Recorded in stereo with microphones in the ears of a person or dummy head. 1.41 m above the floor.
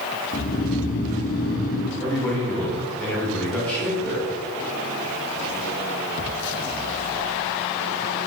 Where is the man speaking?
5° left (ahead or behind), 1.8 m.